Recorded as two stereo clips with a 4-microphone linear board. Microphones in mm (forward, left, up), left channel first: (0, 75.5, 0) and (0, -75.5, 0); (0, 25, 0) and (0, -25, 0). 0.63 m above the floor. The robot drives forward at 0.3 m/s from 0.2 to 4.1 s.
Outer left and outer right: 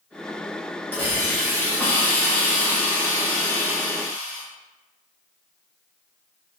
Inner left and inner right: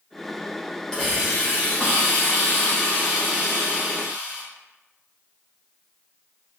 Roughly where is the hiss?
Centre.